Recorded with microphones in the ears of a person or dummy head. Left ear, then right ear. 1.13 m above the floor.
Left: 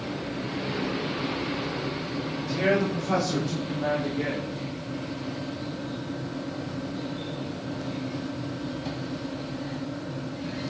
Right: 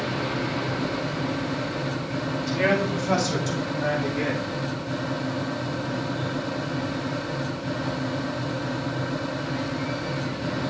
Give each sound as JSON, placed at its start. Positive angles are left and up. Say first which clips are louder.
{"t": 2.4, "sound": "a man speaking", "louder": "right 1 dB", "side_deg": -60, "distance_m": 2.5}